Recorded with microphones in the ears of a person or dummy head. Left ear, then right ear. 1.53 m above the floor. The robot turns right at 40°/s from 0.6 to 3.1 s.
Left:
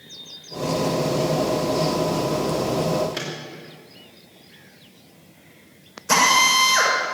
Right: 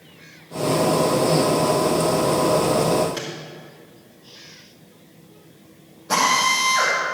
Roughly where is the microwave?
Centre.